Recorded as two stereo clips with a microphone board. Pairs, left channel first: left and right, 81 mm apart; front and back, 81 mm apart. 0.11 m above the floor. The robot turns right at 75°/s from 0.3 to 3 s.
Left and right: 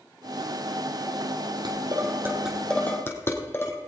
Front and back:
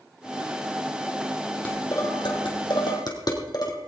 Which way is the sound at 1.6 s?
70° right.